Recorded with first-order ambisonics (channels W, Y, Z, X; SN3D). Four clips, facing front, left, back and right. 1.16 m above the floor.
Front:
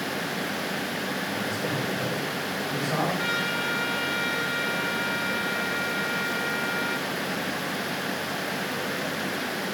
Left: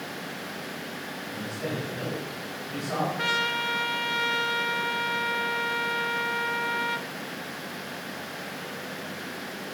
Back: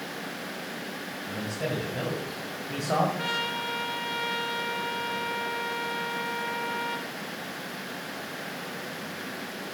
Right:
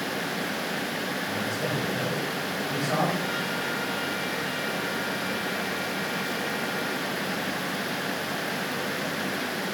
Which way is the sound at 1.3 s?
165° right.